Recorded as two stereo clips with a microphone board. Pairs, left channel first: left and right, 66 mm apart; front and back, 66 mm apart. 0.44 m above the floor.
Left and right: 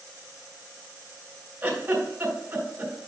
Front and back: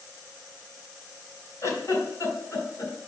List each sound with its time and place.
1.6 s a giggle: 30° right, 2.5 m